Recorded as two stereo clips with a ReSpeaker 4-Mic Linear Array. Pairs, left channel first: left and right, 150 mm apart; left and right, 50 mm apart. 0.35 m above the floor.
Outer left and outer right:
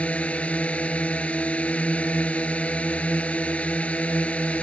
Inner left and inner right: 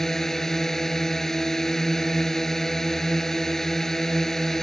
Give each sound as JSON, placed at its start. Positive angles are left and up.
{"t": 0.0, "sound": "a drone", "side_deg": 10}